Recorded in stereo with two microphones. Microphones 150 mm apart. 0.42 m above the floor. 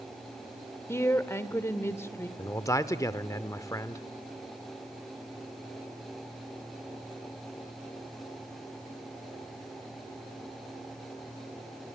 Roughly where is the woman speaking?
Centre.